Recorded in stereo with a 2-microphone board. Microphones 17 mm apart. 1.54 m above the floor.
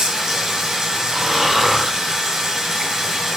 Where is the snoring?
10° right (ahead or behind), 3 m.